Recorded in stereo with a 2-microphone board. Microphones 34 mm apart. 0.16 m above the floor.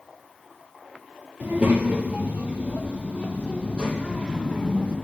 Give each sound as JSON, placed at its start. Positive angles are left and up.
{"t": 1.4, "sound": "a child speaking", "side_deg": -65, "distance_m": 2.5}